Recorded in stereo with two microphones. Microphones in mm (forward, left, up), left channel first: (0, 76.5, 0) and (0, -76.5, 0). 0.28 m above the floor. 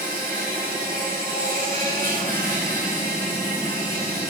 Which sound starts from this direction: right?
An insect, at 0.0 s.